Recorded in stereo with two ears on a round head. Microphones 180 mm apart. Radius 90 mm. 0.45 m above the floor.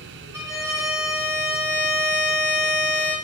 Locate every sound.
0.3 s a violin: 15° right (ahead or behind), 0.7 m